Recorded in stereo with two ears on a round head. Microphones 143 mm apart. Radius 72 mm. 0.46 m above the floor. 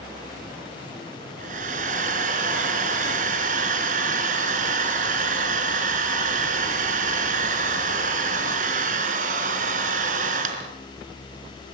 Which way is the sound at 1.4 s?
50° right (ahead or behind).